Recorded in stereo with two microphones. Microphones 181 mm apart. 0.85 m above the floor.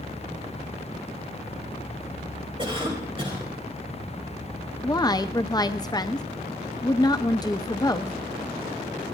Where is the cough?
30° right (ahead or behind), 3.5 m.